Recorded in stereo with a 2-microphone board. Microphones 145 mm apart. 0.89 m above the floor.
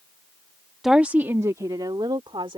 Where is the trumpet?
No trumpet in this recording.